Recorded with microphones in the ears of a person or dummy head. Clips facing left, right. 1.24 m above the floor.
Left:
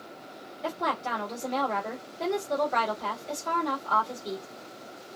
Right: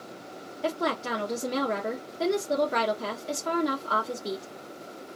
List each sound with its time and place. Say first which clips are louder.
0.6 s a woman speaking: right 3 dB; 55° right (ahead or behind), 1.7 m